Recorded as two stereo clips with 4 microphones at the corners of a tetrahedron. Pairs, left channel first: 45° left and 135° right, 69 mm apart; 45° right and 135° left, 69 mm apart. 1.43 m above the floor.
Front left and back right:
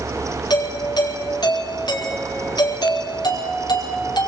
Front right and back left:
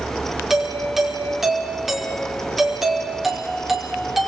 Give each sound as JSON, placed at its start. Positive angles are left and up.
{"t": 0.5, "sound": "a doorbell", "azimuth_deg": 50, "distance_m": 5.0}